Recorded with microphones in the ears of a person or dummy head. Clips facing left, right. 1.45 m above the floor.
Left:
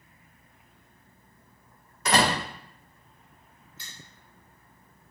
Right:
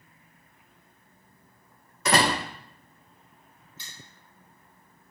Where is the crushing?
5° left (ahead or behind), 1.5 m.